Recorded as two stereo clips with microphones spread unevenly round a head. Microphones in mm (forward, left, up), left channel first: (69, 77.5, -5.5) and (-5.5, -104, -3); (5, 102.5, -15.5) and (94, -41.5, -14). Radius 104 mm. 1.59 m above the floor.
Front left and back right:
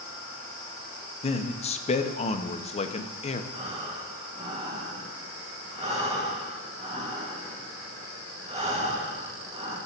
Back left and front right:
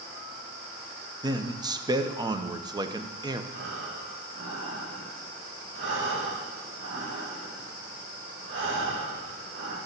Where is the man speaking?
10° left, 0.9 m.